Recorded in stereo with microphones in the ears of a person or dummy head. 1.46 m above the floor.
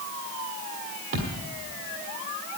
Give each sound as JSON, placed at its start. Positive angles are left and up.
{"t": 1.1, "sound": "a thud", "side_deg": -35, "distance_m": 1.4}